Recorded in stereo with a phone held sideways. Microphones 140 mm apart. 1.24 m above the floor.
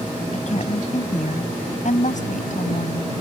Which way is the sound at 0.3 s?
50° left (ahead or behind).